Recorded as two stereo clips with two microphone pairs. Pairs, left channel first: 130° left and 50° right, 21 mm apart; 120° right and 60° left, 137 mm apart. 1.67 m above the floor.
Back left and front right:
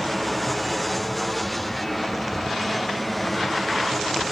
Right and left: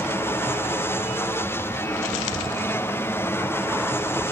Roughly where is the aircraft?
Behind right.